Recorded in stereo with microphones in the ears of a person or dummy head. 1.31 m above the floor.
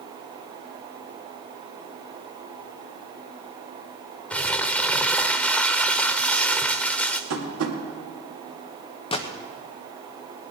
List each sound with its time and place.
4.3 s crumpling: 5° left (ahead or behind), 0.6 m
7.3 s tapping: 90° right, 2.5 m
9.1 s a gunshot: 25° left (ahead or behind), 0.9 m